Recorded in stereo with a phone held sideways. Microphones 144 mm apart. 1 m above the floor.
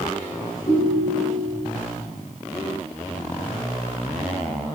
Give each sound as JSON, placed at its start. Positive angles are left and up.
{"t": 0.7, "sound": "a ringtone", "side_deg": 45, "distance_m": 2.0}